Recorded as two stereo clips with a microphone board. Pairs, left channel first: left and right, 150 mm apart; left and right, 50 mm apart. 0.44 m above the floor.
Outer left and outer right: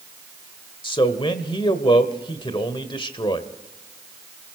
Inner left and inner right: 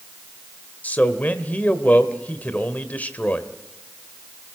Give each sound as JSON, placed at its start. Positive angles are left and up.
{"t": 0.8, "sound": "a man speaking", "side_deg": 35, "distance_m": 1.3}